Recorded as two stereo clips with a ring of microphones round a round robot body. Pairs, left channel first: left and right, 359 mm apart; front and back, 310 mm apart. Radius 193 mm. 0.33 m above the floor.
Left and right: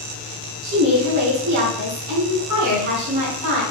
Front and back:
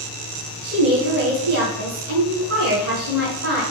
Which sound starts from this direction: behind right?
A woman speaking, at 0.6 s.